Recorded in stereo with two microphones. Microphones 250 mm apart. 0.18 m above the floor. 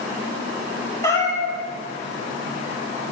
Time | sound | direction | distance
1.0 | a cat meowing | 15° left (ahead or behind) | 0.7 m